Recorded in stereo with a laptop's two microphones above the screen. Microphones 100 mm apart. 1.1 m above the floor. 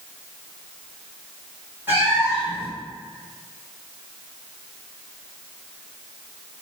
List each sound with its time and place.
1.9 s a cat meowing: 20° right (ahead or behind), 1.7 m